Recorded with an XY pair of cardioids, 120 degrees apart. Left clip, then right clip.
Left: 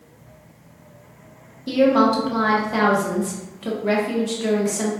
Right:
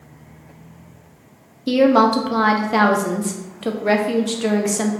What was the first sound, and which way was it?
A woman speaking, 35° right.